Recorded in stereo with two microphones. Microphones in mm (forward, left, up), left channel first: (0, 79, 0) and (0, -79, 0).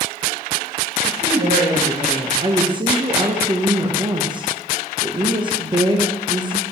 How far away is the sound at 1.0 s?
About 3.5 m.